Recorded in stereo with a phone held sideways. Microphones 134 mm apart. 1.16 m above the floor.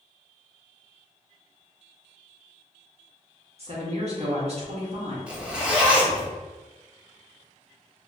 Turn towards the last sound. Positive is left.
turn(degrees=-5)  # may be behind; listen again after turning